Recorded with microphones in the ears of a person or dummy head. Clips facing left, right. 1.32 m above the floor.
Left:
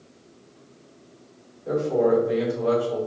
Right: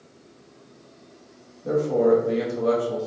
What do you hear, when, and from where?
1.6 s a man speaking: 60° right (ahead or behind), 1.8 m